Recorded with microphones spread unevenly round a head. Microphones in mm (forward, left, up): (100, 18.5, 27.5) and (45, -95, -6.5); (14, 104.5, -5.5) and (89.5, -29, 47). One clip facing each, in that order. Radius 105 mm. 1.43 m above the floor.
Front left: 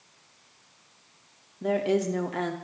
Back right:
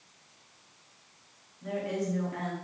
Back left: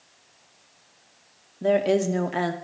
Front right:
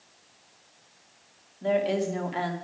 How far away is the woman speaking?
About 1.0 m.